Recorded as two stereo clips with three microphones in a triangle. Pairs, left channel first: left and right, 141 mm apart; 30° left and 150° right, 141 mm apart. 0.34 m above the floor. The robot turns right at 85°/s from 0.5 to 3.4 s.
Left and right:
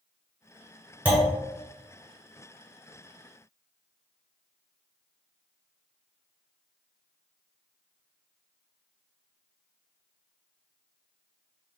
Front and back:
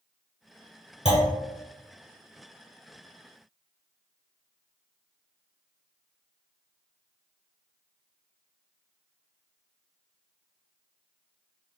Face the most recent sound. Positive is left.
turn(degrees=-175)